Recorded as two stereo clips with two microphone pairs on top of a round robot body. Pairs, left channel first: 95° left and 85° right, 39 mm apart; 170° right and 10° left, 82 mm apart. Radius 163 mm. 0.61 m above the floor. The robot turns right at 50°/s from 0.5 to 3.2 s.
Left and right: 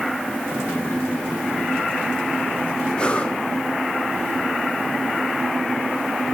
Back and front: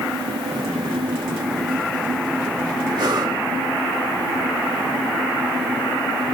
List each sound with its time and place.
3.0 s breathing: 25° left, 2.5 m; by 3.4 s 35° left, 2.5 m